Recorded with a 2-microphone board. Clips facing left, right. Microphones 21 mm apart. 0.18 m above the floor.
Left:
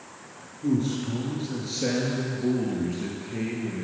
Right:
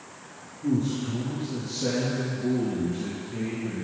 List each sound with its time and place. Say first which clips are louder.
0.6 s a man speaking: left 1 dB; 20° left (ahead or behind), 3 m; by 3.9 s 55° left (ahead or behind), 4 m